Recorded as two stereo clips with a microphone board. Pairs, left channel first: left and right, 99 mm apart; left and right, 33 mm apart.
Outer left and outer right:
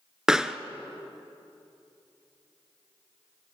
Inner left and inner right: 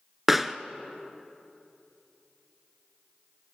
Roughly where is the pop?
Centre.